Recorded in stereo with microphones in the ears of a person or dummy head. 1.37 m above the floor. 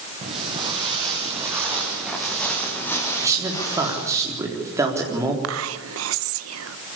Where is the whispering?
90° right, 1.0 m.